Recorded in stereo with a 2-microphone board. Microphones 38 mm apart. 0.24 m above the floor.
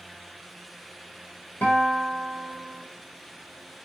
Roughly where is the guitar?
Left.